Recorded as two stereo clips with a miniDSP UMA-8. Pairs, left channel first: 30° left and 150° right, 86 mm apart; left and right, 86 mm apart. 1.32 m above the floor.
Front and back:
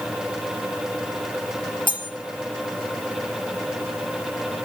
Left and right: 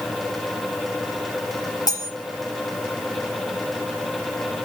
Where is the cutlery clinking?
50° left, 1.3 m.